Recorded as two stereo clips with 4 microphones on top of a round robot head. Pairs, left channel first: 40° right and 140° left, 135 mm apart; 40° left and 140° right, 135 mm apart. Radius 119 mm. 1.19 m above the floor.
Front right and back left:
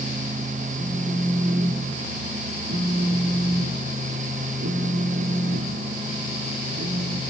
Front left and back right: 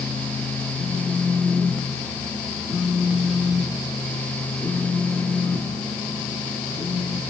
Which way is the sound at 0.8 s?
125° left.